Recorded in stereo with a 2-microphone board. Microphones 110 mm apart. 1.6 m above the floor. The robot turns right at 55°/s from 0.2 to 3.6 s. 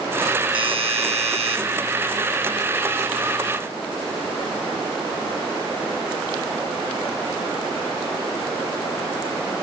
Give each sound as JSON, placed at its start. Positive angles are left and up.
{"t": 0.5, "sound": "a doorbell", "azimuth_deg": -125, "distance_m": 2.5}